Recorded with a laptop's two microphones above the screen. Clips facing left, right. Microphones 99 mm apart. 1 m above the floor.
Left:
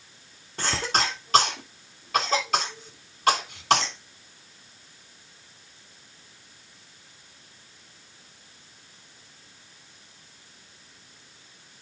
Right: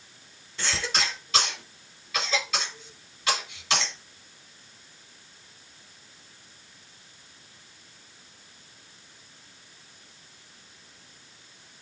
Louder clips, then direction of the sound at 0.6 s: Left 4 dB; 50° left (ahead or behind).